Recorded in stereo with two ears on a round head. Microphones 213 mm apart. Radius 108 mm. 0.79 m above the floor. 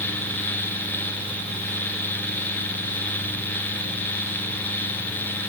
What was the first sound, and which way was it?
Only background noise.